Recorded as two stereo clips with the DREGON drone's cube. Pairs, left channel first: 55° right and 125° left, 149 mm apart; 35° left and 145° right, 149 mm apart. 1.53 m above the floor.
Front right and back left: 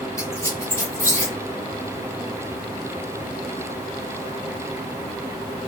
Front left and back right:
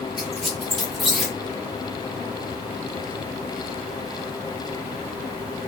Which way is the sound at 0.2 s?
55° right.